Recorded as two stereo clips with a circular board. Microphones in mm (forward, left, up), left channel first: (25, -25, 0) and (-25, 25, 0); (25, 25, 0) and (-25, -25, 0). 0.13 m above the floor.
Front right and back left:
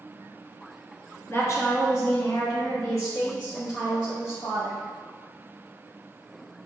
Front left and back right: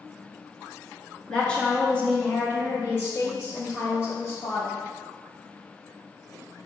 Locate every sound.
1.3 s a woman speaking: 30° right, 1.5 m; by 4.8 s 5° right, 3 m